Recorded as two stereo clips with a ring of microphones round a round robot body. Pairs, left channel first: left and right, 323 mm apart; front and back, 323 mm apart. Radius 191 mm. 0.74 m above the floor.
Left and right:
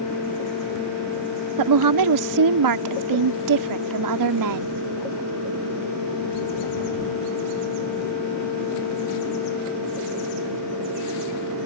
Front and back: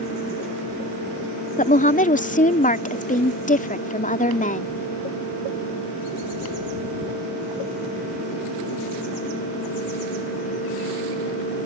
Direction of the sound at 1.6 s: 65° right.